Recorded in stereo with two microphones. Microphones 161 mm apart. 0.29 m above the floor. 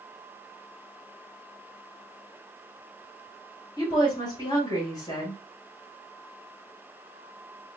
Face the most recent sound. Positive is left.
turn(degrees=25)  # may be behind; listen again after turning